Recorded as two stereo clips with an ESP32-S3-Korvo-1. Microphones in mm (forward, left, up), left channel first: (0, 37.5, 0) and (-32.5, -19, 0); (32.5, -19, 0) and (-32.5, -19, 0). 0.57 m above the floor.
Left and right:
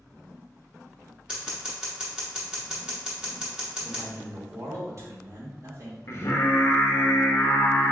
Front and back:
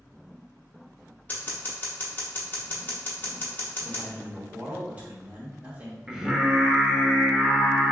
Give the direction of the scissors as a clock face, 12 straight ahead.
2 o'clock.